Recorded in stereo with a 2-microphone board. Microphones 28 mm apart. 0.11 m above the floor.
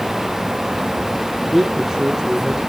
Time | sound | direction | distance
1.4 | a man speaking | 5° right (ahead or behind) | 3.5 m